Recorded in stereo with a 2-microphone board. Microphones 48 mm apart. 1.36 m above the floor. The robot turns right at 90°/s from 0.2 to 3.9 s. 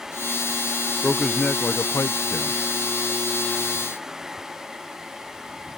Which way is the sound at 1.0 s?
15° right.